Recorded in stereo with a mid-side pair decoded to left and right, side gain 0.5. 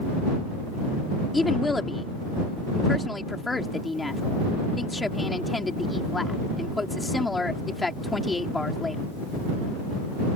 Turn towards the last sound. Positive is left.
turn(degrees=20)